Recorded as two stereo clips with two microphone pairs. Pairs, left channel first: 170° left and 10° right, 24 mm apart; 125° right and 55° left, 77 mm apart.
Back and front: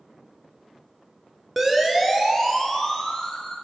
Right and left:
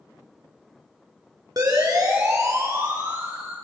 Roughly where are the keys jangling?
I don't hear keys jangling.